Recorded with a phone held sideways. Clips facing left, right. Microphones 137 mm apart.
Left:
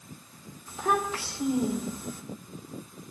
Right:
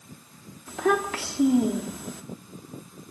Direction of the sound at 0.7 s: 85° right.